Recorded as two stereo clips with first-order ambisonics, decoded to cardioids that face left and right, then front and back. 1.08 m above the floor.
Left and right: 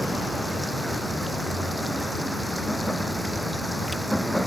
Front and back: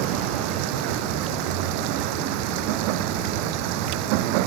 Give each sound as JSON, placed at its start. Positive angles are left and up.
{"t": 0.0, "sound": "running water", "azimuth_deg": 180}